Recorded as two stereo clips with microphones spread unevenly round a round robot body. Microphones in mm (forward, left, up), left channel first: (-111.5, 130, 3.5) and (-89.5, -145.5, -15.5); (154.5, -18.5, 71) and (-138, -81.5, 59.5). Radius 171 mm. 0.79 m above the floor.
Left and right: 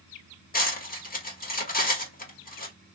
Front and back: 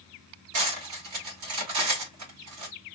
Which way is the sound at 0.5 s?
155° left.